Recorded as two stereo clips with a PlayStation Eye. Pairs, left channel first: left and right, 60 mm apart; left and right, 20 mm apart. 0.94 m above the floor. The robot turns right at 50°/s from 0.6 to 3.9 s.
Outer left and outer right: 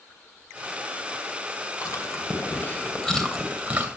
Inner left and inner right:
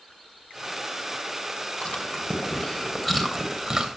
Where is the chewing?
75° left (ahead or behind), 2.5 m; by 3.9 s 30° right (ahead or behind), 2.5 m.